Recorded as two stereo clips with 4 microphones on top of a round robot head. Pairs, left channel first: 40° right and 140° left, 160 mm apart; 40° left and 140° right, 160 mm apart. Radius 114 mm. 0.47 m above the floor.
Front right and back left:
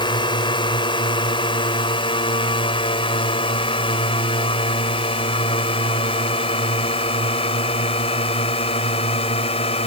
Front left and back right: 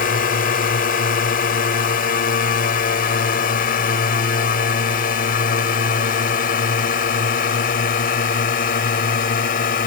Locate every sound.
0.0 s a drone: 20° left; by 9.9 s 15° left